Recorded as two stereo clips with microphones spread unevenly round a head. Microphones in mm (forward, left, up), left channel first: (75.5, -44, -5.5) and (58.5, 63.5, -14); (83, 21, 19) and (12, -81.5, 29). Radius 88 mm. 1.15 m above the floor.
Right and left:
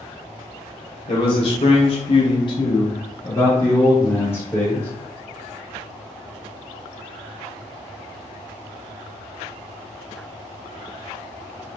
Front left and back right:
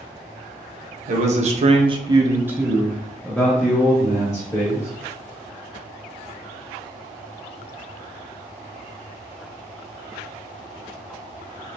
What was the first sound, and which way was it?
A man speaking, 135° right.